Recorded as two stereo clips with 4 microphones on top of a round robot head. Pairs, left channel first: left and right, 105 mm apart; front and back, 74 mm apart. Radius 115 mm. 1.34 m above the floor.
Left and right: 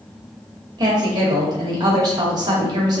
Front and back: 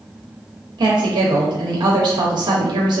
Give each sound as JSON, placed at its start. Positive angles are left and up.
{"t": 0.8, "sound": "a woman speaking", "azimuth_deg": -145, "distance_m": 0.7}